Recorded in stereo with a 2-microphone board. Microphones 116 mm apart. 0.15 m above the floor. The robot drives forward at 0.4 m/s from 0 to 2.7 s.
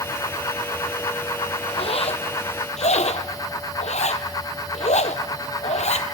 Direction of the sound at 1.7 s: 55° left (ahead or behind).